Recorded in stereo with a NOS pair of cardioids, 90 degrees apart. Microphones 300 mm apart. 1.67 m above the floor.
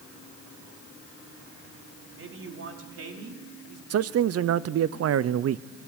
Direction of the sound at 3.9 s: 55° right.